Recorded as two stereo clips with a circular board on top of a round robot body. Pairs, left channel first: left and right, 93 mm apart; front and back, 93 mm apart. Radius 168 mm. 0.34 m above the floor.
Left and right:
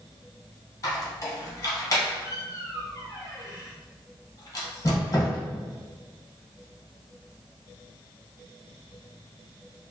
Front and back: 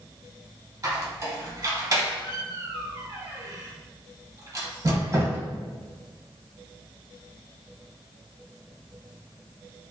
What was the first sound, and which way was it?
A squeak, 135° left.